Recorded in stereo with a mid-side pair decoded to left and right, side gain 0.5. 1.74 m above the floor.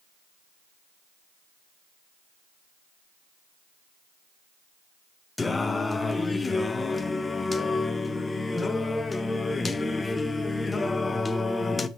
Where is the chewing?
I don't hear chewing.